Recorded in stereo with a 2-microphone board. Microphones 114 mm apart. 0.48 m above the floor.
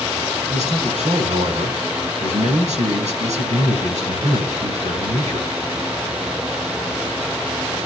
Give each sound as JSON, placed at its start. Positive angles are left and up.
{"t": 0.5, "sound": "a man speaking", "side_deg": -75, "distance_m": 4.5}